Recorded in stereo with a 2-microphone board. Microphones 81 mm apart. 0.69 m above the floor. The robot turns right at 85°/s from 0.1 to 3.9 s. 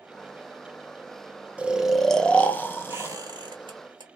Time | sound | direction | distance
1.6 | snoring | 15° right (ahead or behind) | 0.5 m
2.9 | a squeak | 160° right | 1.3 m